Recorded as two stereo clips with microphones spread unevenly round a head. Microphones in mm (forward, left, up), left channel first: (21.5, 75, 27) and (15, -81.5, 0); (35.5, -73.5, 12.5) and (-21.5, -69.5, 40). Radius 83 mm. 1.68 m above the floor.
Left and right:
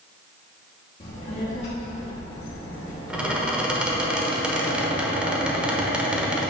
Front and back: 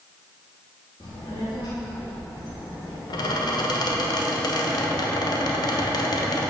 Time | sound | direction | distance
1.0 | a child speaking | 55° left | 1.0 m
3.1 | a squeak | 5° right | 1.1 m